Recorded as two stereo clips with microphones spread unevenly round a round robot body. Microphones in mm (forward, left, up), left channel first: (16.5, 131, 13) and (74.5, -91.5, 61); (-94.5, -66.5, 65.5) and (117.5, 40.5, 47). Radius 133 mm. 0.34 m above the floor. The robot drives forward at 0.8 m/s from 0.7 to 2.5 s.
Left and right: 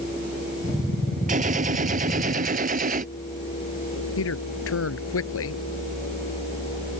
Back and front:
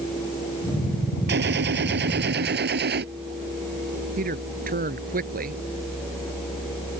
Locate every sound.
1.3 s a gunshot: 20° right
4.2 s a man speaking: 80° left